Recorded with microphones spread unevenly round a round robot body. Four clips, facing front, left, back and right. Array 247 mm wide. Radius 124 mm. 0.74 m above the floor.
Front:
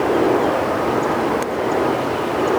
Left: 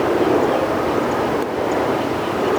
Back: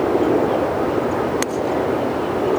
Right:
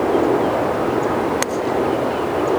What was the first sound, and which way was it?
Only background noise.